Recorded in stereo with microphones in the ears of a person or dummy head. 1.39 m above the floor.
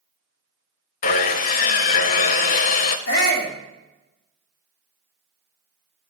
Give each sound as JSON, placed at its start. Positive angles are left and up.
{"t": 1.0, "sound": "sawing", "side_deg": 45, "distance_m": 0.6}
{"t": 3.1, "sound": "a shout", "side_deg": 45, "distance_m": 2.5}